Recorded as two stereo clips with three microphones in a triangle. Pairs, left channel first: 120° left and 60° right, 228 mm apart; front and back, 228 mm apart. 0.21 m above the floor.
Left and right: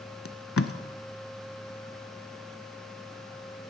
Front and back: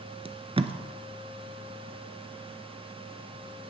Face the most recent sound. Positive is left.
turn(degrees=120)